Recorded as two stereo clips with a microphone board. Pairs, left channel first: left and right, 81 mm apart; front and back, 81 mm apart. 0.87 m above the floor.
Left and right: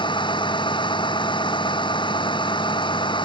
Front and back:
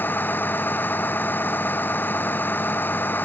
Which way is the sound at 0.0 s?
70° left.